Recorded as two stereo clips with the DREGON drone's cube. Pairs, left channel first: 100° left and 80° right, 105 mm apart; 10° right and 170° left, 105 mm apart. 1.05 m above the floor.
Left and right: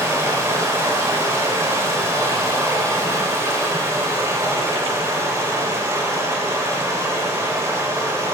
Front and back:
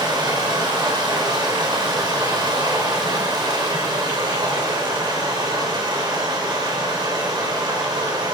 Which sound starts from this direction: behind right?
Running water, at 0.0 s.